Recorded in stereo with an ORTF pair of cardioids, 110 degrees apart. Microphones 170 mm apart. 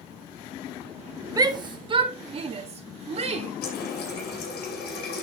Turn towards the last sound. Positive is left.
turn(degrees=70)